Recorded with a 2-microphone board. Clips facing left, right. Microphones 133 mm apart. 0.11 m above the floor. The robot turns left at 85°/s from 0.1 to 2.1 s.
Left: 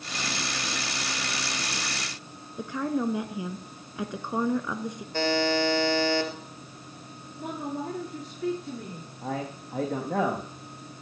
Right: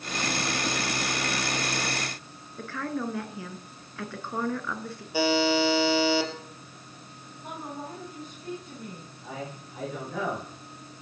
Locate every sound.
2.6 s a woman speaking: 20° left (ahead or behind), 1.1 m
5.1 s a buzzer: 10° right (ahead or behind), 3 m
7.4 s a woman speaking: 80° left, 9 m
9.2 s a man speaking: 60° left (ahead or behind), 6 m